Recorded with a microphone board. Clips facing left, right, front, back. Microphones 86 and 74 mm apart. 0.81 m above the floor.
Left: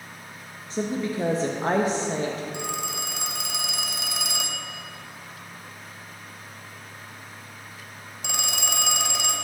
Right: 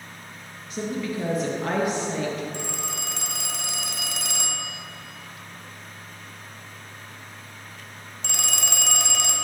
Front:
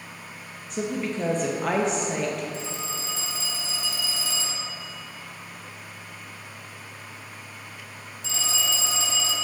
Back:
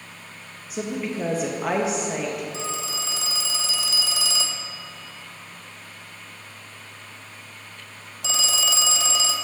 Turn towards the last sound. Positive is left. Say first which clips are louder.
# left 2 dB, back 3 dB
turn(degrees=170)